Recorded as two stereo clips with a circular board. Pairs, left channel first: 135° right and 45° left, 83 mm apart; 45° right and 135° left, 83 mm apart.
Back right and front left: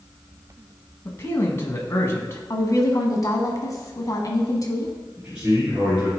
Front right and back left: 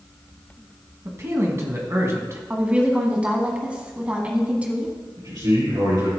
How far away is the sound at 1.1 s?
About 1.6 m.